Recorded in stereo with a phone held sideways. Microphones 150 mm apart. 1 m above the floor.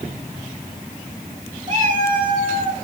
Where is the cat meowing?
55° right (ahead or behind), 1.4 m; by 2.8 s 60° right (ahead or behind), 1.3 m.